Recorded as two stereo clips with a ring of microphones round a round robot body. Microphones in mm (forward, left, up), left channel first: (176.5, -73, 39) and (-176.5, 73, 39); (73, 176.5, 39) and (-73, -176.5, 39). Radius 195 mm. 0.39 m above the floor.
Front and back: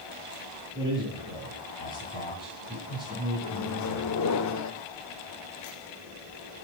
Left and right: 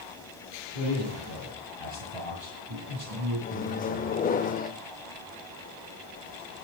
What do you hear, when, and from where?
0.8 s a man speaking: 125° right, 6 m
3.4 s a microwave: 5° left, 0.8 m